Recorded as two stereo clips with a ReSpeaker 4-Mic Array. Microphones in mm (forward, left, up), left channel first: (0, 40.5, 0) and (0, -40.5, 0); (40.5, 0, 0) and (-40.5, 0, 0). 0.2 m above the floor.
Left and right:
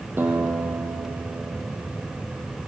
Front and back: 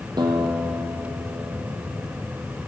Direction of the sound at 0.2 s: 150° right.